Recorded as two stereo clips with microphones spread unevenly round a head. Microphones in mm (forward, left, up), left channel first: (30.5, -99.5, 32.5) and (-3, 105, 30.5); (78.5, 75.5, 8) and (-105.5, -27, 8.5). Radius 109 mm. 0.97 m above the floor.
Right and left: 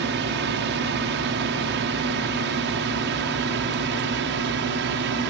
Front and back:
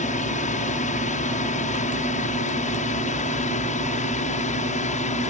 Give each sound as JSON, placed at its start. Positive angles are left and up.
{"t": 0.0, "sound": "a drone", "azimuth_deg": 80}